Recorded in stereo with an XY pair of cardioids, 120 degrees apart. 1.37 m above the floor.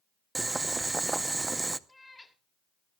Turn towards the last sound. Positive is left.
turn(degrees=10)